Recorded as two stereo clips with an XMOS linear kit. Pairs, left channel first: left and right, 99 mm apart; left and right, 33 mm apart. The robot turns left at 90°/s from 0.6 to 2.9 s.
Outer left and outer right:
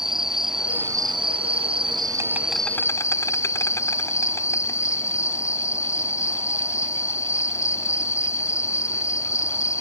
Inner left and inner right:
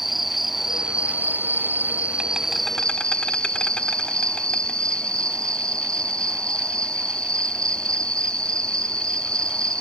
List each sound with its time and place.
0.0 s an insect: 5° right; by 9.8 s 150° left